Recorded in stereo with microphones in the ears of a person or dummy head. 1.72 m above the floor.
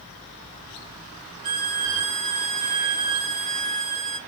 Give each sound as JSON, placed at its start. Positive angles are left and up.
{"t": 1.4, "sound": "a violin", "side_deg": -40, "distance_m": 0.9}